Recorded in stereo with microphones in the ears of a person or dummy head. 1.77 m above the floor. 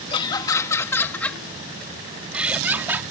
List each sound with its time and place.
0.1 s laughter: 25° left (ahead or behind); by 3.0 s 15° right (ahead or behind)